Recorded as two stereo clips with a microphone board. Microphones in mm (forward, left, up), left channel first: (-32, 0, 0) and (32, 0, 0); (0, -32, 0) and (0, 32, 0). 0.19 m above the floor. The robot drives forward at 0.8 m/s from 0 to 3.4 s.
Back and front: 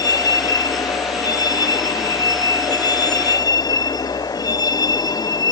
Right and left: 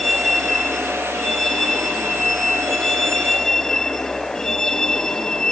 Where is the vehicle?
Straight behind; by 5.5 s 170° right.